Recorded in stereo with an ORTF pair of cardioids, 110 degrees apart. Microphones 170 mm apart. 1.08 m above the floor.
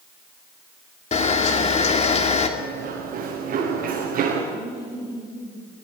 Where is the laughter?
10° left, 8.5 m.